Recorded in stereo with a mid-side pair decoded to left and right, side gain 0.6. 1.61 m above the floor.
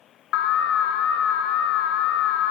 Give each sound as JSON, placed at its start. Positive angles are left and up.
{"t": 0.3, "sound": "an alarm", "azimuth_deg": 70, "distance_m": 0.6}